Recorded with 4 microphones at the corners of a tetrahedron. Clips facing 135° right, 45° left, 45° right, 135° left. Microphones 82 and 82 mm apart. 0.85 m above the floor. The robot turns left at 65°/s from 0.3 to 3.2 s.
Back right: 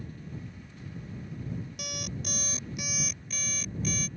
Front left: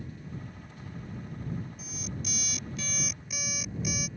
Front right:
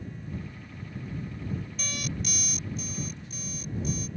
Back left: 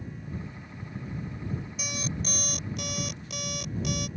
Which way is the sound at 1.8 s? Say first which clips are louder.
Back right 1 dB, back left 1 dB; 145° right.